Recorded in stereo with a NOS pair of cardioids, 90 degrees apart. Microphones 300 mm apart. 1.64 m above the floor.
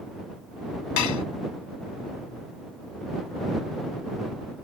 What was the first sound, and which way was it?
Dishes clattering, 70° left.